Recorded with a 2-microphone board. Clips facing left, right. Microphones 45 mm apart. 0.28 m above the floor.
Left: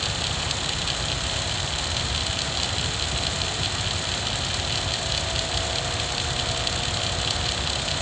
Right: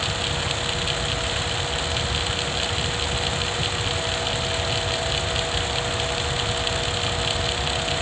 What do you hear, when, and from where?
Only background noise.